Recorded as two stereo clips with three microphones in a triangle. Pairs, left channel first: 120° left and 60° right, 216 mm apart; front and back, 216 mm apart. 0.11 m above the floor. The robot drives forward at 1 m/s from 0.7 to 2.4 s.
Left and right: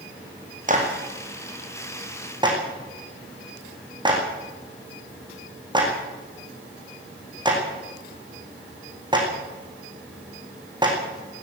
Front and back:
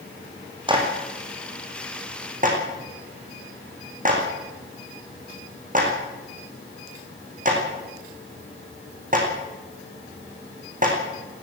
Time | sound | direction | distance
0.7 | a clap | 115° right | 4.5 m